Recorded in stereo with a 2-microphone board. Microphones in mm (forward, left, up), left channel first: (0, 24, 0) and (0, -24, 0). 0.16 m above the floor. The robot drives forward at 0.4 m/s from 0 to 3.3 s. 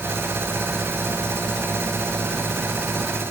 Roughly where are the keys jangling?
I don't hear keys jangling.